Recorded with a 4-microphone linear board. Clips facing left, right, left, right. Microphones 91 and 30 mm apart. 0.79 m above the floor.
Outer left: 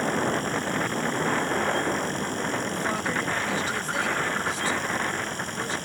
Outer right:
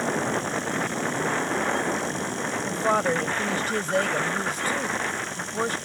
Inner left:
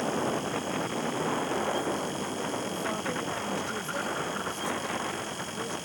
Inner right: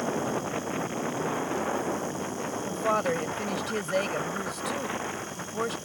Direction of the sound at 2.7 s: 50° right (ahead or behind).